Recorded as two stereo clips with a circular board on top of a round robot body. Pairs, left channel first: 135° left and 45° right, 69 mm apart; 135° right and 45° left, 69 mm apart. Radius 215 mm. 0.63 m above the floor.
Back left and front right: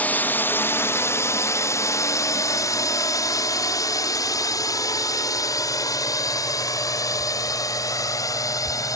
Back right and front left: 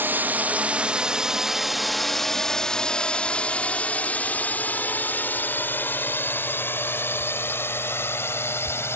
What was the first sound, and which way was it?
A drone, 85° left.